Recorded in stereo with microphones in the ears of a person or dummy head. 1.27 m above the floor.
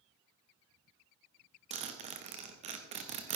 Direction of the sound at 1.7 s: 35° right (ahead or behind).